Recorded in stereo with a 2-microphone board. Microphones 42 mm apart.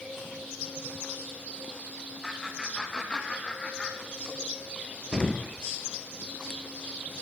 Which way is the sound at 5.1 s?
15° left (ahead or behind).